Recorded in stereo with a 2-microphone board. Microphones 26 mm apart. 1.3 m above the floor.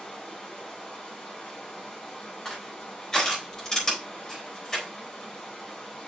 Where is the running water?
20° left (ahead or behind), 4 m.